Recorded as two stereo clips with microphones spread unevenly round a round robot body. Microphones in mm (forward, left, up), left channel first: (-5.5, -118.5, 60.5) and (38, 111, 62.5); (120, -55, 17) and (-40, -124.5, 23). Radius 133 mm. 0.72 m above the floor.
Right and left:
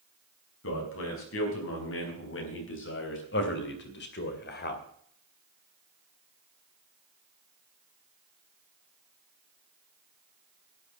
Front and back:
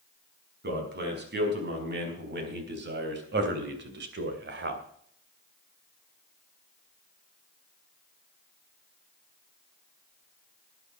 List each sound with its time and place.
0.6 s a man speaking: 135° right, 5 m; by 4.8 s 150° right, 2.5 m